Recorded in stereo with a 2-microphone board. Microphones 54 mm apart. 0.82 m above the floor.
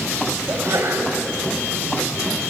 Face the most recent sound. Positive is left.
turn(degrees=-60)  # may be behind; listen again after turning